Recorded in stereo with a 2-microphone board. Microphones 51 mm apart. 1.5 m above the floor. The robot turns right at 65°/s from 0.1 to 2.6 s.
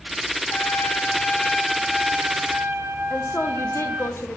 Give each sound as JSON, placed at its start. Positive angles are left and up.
{"t": 0.5, "sound": "a trumpet", "azimuth_deg": 100, "distance_m": 0.7}
{"t": 3.1, "sound": "a woman speaking", "side_deg": 60, "distance_m": 0.7}